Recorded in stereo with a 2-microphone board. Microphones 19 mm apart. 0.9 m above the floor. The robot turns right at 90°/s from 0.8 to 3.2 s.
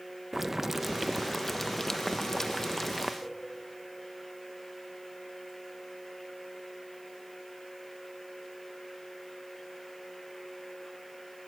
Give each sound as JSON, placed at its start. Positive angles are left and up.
{"t": 0.3, "sound": "boiling", "side_deg": -15, "distance_m": 0.6}
{"t": 3.2, "sound": "a cowbell", "side_deg": 75, "distance_m": 8.0}